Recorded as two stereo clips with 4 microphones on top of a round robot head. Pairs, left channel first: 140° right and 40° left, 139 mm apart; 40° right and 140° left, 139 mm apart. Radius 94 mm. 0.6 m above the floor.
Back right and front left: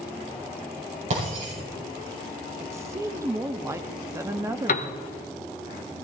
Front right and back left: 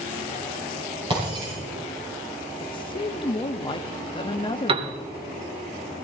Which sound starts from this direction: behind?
A piano, at 4.7 s.